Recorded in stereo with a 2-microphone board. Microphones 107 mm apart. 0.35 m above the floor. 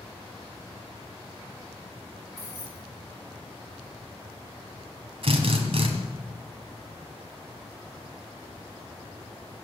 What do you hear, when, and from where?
2.4 s keys jangling: 85° left, 9 m
5.2 s a drill: 60° right (ahead or behind), 3 m